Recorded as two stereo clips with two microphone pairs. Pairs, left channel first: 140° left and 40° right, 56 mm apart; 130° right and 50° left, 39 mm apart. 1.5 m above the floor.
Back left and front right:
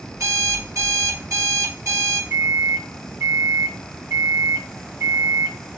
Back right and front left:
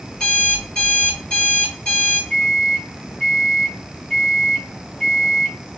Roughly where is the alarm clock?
Right.